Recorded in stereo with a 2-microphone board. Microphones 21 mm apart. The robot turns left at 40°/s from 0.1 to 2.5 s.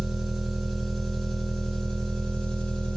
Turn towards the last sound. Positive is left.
turn(degrees=120)